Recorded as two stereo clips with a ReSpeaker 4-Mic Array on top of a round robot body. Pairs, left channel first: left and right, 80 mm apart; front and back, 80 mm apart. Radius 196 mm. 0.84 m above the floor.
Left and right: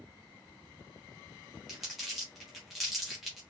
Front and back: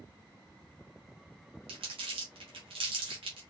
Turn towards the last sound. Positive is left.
turn(degrees=180)